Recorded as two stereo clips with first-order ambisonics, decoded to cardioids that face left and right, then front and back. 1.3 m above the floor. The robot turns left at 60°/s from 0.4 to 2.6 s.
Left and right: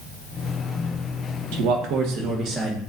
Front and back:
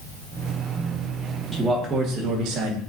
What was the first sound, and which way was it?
A man speaking, 90° right.